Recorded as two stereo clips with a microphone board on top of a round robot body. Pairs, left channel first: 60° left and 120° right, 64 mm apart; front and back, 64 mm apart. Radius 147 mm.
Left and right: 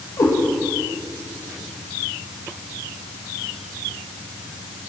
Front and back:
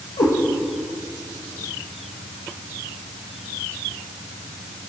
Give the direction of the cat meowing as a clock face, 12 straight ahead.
12 o'clock.